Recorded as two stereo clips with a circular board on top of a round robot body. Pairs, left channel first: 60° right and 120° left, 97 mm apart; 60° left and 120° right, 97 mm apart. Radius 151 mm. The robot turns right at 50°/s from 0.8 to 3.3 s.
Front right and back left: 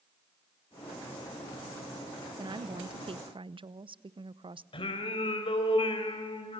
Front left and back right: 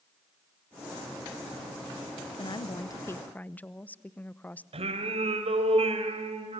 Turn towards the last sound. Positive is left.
turn(degrees=-95)